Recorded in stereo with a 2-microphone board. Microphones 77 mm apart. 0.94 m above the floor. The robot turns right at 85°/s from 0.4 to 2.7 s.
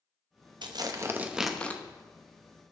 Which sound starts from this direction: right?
Tearing paper, at 0.6 s.